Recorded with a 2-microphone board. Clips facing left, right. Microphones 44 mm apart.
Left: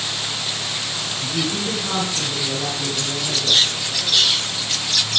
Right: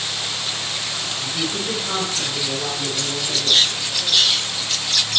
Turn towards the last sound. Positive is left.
turn(degrees=10)  # may be behind; listen again after turning